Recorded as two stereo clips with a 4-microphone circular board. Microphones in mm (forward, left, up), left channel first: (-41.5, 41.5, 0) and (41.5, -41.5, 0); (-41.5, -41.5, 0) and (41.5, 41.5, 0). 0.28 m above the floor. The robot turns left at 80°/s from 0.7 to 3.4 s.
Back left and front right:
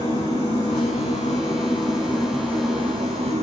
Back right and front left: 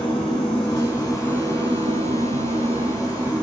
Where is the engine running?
170° left, 9 m; by 3.4 s 45° right, 9 m.